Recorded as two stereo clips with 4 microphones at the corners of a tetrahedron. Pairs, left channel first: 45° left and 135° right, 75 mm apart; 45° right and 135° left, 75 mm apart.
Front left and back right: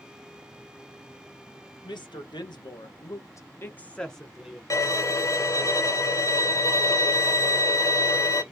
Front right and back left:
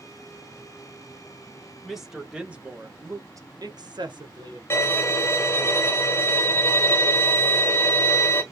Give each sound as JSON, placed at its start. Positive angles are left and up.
{"t": 1.8, "sound": "a woman speaking", "azimuth_deg": 50, "distance_m": 1.2}
{"t": 4.7, "sound": "a violin", "azimuth_deg": 10, "distance_m": 0.9}